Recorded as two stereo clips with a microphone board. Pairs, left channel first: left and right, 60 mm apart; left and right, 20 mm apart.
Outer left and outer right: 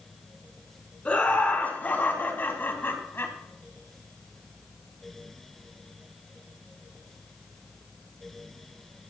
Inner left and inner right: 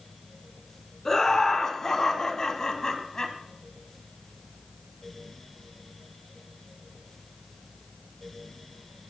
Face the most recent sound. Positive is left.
turn(degrees=40)  # may be behind; listen again after turning